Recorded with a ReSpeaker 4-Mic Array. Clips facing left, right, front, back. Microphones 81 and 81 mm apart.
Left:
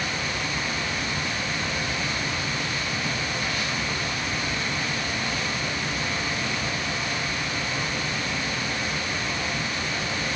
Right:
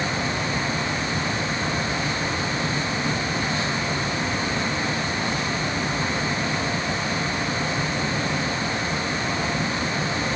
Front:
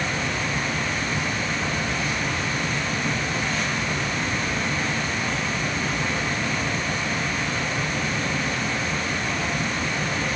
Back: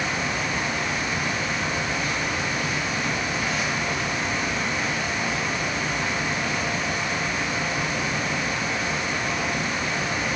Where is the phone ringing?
No phone ringing in this recording.